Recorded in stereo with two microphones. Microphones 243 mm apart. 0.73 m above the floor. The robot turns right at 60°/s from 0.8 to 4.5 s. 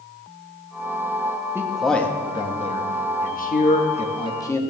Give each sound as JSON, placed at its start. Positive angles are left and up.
{"t": 1.6, "sound": "a man speaking", "side_deg": -10, "distance_m": 1.0}